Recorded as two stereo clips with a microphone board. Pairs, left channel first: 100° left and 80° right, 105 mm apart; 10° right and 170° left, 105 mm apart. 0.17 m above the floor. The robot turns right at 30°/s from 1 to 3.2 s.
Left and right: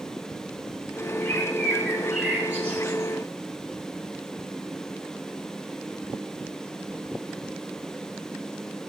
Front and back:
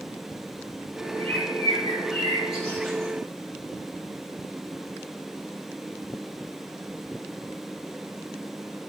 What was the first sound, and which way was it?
A bird, 165° left.